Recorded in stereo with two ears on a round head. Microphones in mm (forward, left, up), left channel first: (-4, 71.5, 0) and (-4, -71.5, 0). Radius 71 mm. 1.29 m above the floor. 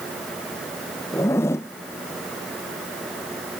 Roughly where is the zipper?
Centre.